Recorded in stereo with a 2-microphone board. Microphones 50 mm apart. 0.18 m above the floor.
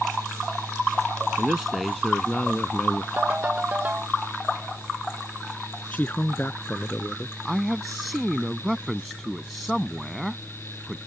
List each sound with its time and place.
1.4 s a man speaking: 15° right (ahead or behind); by 3.1 s 35° left (ahead or behind)
3.2 s a ringtone: 30° right (ahead or behind)
5.9 s a man speaking: 30° left (ahead or behind)
7.5 s a man speaking: centre (ahead or behind)